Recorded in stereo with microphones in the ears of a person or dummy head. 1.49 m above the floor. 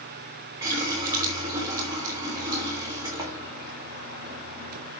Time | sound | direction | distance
0.6 | a running tap | 15° right (ahead or behind) | 3 m